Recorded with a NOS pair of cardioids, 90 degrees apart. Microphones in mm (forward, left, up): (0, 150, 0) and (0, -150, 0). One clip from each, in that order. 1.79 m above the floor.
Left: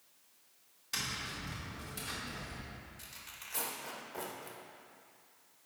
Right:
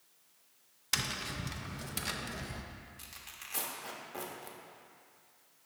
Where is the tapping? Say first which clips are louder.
Right 3 dB; 55° right, 0.7 m.